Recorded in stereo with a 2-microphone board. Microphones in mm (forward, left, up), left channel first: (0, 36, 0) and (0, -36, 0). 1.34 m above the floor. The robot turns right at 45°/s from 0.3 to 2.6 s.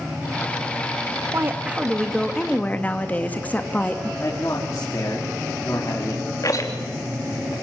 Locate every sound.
1.3 s a woman speaking: 35° right, 1.9 m; by 4.1 s 25° left, 1.9 m
4.2 s a man speaking: 45° left (ahead or behind), 3.5 m
6.4 s a rattle: 50° left (ahead or behind), 3 m